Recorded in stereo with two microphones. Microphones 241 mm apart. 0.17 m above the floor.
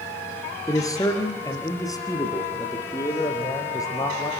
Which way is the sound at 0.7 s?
15° left (ahead or behind).